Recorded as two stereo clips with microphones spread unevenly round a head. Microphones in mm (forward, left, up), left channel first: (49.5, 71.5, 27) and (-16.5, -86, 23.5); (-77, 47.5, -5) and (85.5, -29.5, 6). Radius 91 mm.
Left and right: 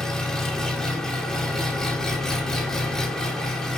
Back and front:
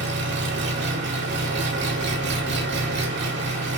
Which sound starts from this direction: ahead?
An engine running, at 0.0 s.